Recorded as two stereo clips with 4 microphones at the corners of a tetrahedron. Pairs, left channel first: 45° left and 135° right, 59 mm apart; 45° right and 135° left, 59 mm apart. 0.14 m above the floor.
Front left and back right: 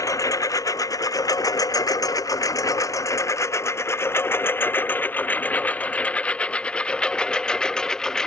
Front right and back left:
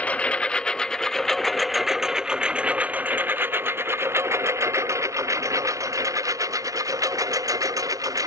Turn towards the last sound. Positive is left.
turn(degrees=125)